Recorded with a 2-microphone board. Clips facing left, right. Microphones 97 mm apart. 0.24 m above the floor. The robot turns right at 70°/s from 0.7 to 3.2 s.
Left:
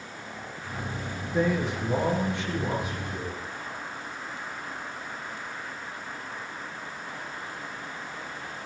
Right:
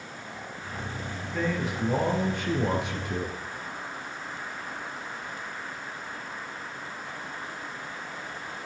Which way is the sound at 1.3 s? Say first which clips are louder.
Left 3 dB; 155° left.